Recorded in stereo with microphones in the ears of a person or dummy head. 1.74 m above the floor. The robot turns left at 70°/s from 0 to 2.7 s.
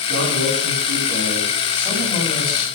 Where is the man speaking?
65° right, 10 m; by 2.7 s 115° left, 10 m.